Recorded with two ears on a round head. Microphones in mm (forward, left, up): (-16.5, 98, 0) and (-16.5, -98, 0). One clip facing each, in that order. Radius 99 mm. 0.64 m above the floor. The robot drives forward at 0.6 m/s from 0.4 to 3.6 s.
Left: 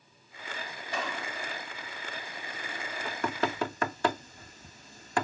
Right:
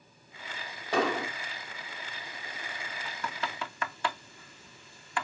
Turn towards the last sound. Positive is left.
turn(degrees=40)  # may be behind; listen again after turning